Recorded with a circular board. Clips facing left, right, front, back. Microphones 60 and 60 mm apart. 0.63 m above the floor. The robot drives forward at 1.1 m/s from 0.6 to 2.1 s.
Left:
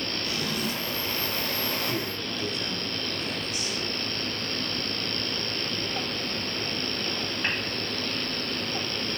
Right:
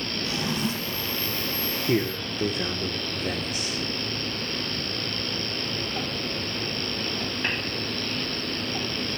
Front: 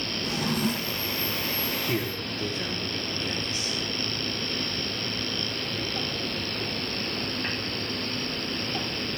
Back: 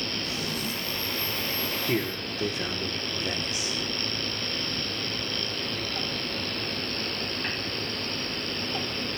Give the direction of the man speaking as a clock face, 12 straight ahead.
4 o'clock.